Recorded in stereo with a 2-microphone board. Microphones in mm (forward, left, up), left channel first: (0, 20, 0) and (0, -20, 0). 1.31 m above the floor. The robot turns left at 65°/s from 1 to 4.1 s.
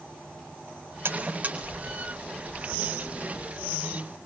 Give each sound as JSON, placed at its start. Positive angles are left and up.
{"t": 1.1, "sound": "a buzzer", "side_deg": -65, "distance_m": 4.5}